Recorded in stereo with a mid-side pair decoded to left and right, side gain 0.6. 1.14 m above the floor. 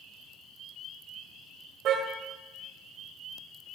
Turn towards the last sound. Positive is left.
turn(degrees=-55)